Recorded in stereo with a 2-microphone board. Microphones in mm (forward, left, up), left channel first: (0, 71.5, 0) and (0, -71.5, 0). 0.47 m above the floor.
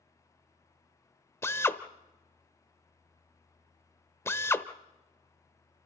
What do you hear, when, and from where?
1.4 s a drill: 15° left (ahead or behind), 1.0 m